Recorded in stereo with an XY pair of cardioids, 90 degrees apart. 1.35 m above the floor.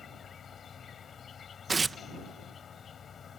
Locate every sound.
0.0 s an insect: 55° left
1.7 s tearing paper: 35° right